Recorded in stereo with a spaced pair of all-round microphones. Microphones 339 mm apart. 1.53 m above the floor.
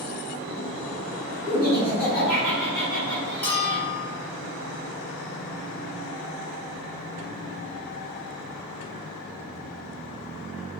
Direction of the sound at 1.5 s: 75° right (ahead or behind).